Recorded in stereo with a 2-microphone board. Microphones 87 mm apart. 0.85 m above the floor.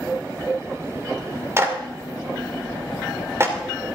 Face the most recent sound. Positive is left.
turn(degrees=-30)  # may be behind; listen again after turning